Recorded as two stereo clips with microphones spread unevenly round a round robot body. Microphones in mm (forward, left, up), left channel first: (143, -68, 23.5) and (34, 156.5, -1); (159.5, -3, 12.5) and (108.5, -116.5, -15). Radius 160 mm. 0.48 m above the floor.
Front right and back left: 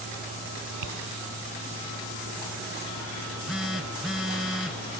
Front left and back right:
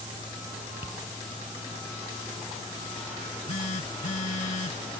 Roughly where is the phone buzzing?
Ahead left.